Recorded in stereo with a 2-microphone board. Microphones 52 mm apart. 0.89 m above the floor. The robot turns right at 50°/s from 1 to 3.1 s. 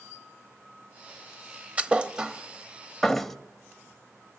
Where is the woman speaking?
No woman speaking in this recording.